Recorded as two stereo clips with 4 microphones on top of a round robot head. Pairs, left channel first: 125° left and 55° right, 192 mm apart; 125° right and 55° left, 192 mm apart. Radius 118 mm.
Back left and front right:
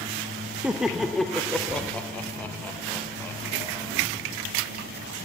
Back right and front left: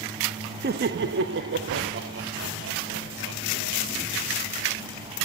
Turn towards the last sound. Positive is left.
turn(degrees=45)